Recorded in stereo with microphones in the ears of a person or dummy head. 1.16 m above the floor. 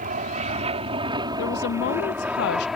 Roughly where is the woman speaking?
Left.